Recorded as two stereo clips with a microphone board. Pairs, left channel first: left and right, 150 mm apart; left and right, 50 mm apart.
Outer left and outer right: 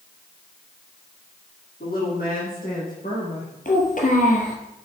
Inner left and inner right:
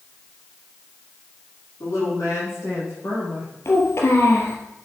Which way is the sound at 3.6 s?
60° left (ahead or behind).